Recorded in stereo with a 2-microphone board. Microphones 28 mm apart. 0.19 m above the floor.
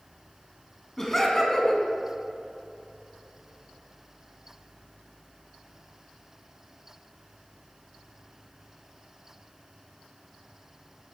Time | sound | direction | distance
1.0 | laughter | 15° left (ahead or behind) | 1.9 m